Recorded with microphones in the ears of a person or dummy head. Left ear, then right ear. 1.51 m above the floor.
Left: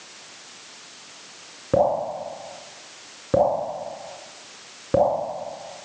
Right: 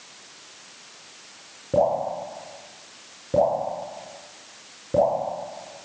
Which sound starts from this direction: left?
Dripping, at 1.7 s.